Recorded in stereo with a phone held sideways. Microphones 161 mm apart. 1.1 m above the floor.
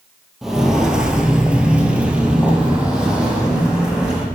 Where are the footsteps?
Centre (ahead or behind), 1.4 m; by 4.2 s 5° right (ahead or behind), 3 m.